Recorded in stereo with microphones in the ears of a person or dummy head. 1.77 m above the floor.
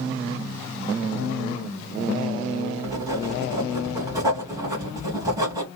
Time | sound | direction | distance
2.8 | writing | 20° right (ahead or behind) | 1.6 m